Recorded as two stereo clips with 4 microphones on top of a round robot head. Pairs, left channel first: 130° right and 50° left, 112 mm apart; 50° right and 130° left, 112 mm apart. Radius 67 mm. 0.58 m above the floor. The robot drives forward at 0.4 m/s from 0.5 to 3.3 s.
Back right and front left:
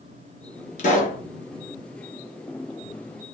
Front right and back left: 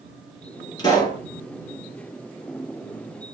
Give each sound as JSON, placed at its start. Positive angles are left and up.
{"t": 0.8, "sound": "a pop", "azimuth_deg": -110, "distance_m": 3.0}